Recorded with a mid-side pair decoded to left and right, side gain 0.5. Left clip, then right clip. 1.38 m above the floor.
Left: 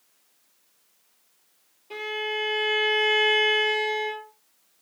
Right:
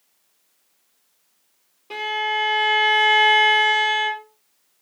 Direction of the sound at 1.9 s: 60° right.